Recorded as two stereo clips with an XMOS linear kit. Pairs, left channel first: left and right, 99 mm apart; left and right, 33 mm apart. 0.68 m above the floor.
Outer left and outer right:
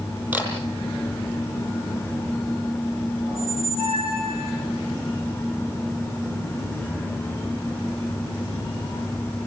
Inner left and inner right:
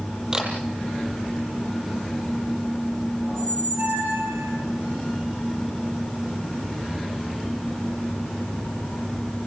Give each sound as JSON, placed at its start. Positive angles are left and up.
{"t": 0.3, "sound": "a camera shutter", "side_deg": -20, "distance_m": 6.0}
{"t": 3.3, "sound": "a squeak", "side_deg": -80, "distance_m": 5.5}